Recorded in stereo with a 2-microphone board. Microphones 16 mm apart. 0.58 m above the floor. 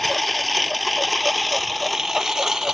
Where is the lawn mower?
10° left (ahead or behind); by 2.7 s 30° right (ahead or behind).